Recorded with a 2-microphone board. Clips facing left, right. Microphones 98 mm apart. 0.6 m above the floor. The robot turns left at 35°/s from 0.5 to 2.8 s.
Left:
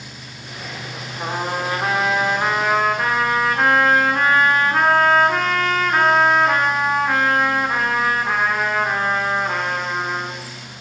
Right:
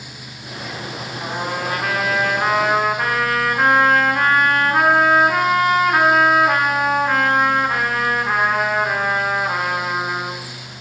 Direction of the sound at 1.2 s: 55° left.